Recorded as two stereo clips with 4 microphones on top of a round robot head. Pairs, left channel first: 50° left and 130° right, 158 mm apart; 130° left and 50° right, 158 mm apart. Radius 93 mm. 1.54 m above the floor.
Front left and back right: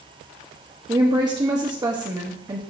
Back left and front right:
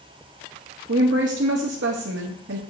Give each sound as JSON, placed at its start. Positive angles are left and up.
{"t": 0.9, "sound": "a woman speaking", "azimuth_deg": -65, "distance_m": 0.8}